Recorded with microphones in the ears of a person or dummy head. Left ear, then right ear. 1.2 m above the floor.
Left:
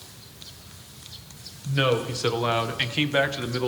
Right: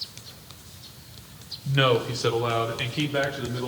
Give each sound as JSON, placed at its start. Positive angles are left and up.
{"t": 1.6, "sound": "a man speaking", "side_deg": -20, "distance_m": 1.0}